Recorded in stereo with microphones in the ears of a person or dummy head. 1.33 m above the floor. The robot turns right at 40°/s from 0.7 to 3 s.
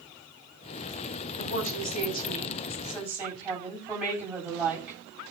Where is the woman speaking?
120° left, 9 m; by 5.0 s 175° right, 9 m.